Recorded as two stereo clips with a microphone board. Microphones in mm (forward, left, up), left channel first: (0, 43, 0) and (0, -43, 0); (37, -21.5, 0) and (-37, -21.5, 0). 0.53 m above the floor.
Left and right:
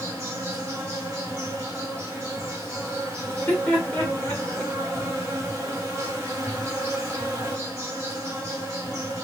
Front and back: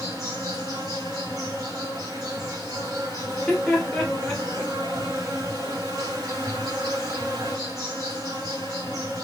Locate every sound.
0.0 s an insect: 145° right, 1.4 m
3.3 s laughter: 70° left, 0.9 m